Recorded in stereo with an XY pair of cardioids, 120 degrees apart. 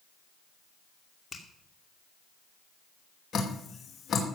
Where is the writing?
I don't hear writing.